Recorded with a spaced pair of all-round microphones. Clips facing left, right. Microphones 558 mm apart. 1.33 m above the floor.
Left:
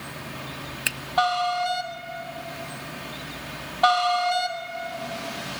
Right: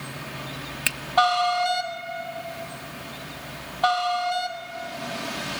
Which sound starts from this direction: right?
A finger snap, at 0.9 s.